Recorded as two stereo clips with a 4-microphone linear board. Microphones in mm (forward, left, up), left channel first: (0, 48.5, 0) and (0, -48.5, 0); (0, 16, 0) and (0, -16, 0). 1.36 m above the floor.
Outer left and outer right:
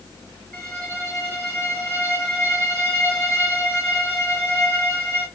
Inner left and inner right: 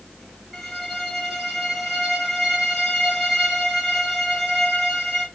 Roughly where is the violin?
Centre.